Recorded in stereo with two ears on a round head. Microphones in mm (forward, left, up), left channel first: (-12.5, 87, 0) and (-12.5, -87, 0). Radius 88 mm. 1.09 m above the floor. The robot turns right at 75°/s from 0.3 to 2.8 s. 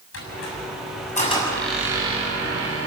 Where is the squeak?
75° left, 6.5 m; by 2.9 s 100° right, 6.5 m.